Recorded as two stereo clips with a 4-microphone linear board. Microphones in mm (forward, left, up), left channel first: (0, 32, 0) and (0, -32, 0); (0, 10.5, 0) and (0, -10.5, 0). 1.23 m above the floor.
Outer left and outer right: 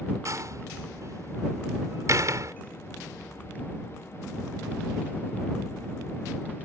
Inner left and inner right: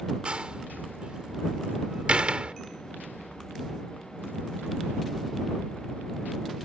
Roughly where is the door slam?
Right.